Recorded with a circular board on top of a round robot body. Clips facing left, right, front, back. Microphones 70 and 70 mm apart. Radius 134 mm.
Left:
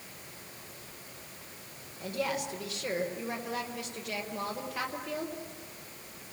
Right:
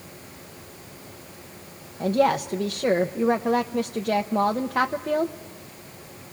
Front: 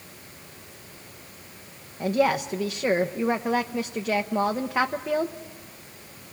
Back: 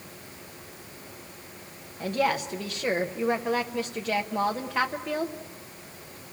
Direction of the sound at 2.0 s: 75° right.